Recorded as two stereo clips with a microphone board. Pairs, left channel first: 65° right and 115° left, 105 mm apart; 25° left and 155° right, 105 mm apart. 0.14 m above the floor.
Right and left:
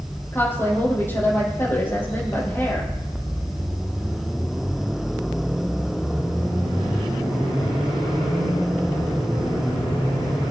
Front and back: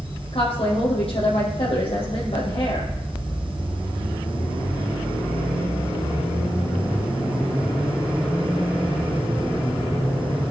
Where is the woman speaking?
Straight ahead, 4.5 m.